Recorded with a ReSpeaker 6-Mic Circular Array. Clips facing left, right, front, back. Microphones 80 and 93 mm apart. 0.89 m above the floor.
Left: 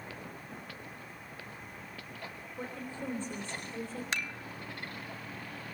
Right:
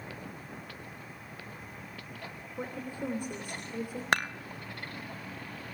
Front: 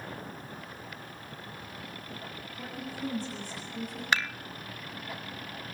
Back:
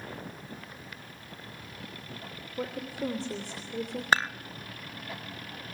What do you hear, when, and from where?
2.6 s a woman speaking: 170° right, 3 m
4.1 s dishes clattering: 125° right, 0.6 m